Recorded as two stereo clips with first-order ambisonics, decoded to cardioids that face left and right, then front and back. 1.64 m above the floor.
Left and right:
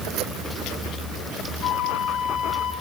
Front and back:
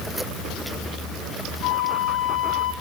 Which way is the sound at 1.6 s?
35° left.